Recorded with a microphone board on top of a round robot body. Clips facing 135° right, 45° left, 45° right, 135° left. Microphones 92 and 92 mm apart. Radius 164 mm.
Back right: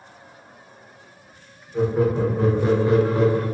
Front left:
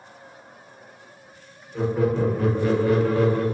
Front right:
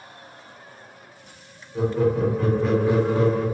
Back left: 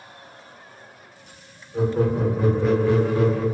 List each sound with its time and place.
1.7 s laughter: 155° left, 1.0 m; by 3.5 s 70° right, 1.0 m